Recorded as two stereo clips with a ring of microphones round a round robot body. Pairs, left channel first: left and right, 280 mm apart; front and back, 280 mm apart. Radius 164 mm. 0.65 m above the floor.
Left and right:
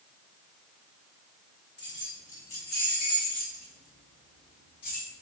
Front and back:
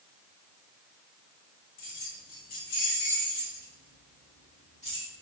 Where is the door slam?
No door slam in this recording.